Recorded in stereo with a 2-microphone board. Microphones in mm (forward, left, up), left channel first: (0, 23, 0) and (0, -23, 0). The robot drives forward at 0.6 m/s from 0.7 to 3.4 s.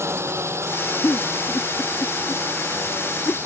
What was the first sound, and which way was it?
A drone, 75° right (ahead or behind).